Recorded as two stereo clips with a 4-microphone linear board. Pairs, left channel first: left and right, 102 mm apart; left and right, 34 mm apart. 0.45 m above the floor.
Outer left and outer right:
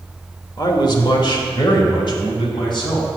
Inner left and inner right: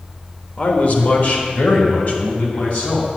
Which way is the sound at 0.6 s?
45° left (ahead or behind).